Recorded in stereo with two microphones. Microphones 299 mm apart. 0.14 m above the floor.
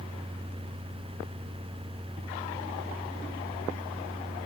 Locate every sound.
Only background noise.